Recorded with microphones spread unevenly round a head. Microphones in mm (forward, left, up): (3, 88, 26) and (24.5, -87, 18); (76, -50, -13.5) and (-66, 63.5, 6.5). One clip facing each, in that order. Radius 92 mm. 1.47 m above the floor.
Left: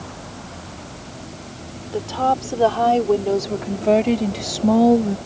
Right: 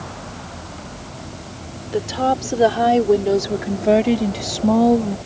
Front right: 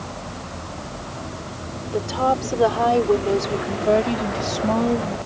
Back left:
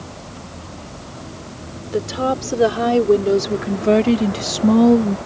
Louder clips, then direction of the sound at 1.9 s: Right 1 dB, back left 1 dB; 155° right.